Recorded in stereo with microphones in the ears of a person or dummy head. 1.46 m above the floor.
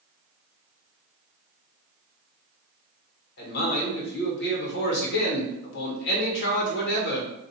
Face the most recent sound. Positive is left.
turn(degrees=55)  # may be behind; listen again after turning